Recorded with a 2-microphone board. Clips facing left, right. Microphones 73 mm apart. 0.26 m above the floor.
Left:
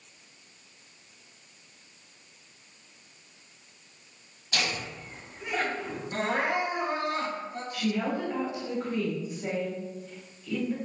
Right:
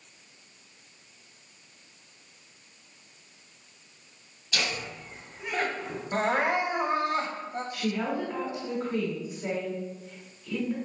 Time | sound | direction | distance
4.5 | laughter | 40° left (ahead or behind) | 1.7 m
6.1 | crying | 30° right (ahead or behind) | 0.7 m
7.7 | a woman speaking | centre (ahead or behind) | 1.6 m